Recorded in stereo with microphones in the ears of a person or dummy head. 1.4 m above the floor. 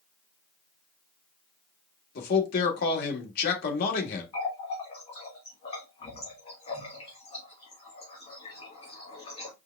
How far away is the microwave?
No microwave in this recording.